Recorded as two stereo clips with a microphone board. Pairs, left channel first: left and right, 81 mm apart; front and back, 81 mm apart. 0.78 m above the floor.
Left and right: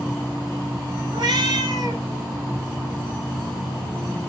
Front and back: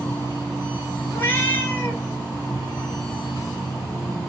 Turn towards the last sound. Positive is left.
turn(degrees=-65)